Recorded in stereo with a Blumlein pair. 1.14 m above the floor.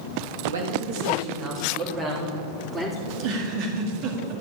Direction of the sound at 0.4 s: 65° right.